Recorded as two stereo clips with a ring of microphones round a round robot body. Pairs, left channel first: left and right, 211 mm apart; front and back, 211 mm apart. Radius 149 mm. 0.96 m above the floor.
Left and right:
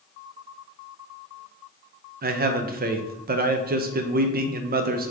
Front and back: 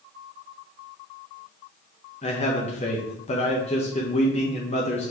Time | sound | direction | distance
2.2 | a man speaking | 55° right | 0.5 m